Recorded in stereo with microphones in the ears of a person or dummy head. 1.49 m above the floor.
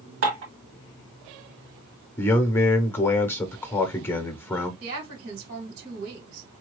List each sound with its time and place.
0.2 s dishes clattering: 65° right (ahead or behind), 2 m
2.2 s a man speaking: 10° left (ahead or behind), 0.7 m
4.8 s a woman speaking: 75° right (ahead or behind), 2.5 m